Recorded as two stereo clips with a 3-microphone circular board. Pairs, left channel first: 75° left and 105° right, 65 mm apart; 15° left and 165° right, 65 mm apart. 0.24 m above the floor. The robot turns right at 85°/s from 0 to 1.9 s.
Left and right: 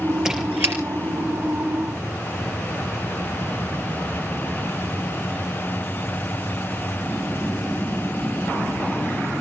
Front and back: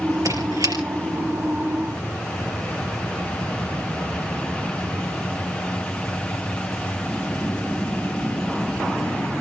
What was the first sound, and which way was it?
A squeak, 170° left.